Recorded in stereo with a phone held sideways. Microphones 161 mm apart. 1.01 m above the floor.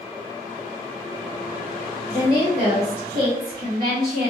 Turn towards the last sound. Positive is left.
turn(degrees=-70)  # may be behind; listen again after turning